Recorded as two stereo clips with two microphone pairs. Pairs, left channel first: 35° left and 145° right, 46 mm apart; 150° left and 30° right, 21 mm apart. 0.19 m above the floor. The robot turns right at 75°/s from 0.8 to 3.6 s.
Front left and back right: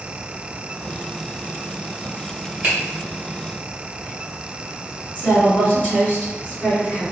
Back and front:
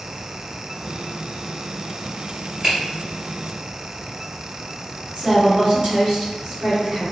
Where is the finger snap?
90° right, 1.9 m; by 2.8 s 80° right, 1.9 m.